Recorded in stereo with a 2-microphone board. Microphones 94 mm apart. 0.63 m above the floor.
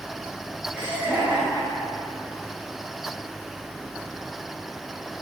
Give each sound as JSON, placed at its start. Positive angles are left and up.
{"t": 0.7, "sound": "laughter", "side_deg": -15, "distance_m": 3.5}